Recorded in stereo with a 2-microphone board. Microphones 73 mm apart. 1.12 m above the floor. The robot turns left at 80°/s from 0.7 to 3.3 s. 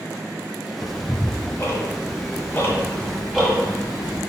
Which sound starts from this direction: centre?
Ticking, at 0.8 s.